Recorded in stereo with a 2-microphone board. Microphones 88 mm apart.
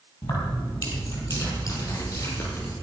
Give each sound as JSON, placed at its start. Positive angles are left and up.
{"t": 0.2, "sound": "keys jangling", "side_deg": 55, "distance_m": 5.0}